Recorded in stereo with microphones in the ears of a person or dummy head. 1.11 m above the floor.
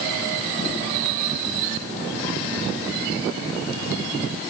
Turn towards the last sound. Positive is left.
No sound to turn to.